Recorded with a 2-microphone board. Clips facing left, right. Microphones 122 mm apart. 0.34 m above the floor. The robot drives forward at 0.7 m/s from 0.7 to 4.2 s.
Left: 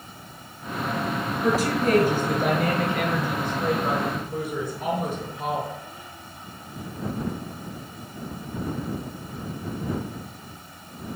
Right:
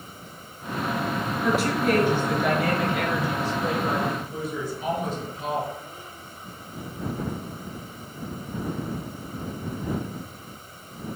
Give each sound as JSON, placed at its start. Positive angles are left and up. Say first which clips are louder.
{"t": 1.4, "sound": "a woman speaking", "louder": "left 1 dB", "side_deg": 35, "distance_m": 5.0}